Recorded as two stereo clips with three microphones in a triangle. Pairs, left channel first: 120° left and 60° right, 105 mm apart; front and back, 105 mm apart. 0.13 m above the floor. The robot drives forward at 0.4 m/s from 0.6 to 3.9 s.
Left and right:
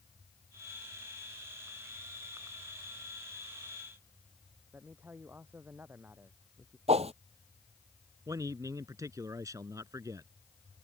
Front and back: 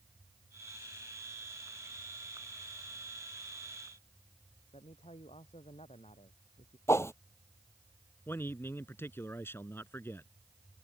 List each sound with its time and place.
4.7 s a man speaking: 10° left
6.9 s a whoosh: 65° right
8.3 s a man speaking: 45° right